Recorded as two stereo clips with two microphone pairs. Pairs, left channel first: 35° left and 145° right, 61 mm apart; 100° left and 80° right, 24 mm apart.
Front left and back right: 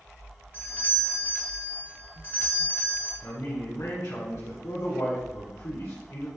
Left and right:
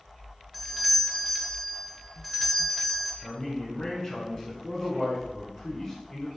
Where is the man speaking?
45° left, 2.5 m.